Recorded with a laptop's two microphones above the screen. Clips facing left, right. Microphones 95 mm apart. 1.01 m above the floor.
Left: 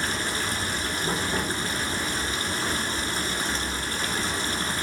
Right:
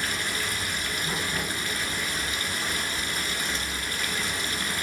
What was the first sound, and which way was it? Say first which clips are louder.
Running water: left 2 dB; 35° left (ahead or behind).